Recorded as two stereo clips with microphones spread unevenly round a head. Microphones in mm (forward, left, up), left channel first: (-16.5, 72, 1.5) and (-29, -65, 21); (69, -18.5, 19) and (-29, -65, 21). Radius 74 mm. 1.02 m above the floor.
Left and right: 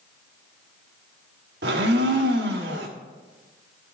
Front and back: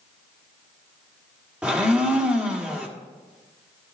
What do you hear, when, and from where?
1.6 s a blender: 75° right, 1.6 m